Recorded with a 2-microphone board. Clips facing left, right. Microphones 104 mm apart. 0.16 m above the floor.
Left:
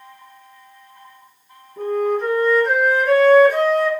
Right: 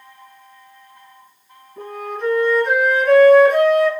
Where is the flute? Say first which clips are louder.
Left 8 dB; 5° left (ahead or behind), 2.5 m.